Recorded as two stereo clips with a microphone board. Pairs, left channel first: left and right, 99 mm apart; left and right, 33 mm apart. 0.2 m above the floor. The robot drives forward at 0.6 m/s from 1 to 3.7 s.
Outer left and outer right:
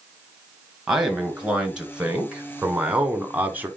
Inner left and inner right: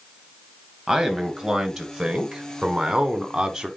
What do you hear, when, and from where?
0.9 s a man speaking: 10° right (ahead or behind), 2.5 m; by 3.7 s 20° right (ahead or behind), 1.2 m